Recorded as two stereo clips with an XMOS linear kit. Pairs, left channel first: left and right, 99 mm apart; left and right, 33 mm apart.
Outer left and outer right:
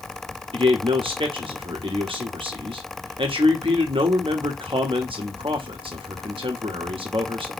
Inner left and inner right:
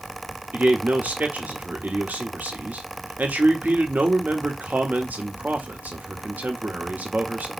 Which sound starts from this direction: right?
A man speaking, at 0.5 s.